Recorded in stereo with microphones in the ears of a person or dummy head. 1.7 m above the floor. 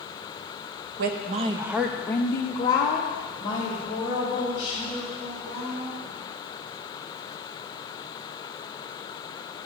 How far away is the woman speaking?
About 0.6 m.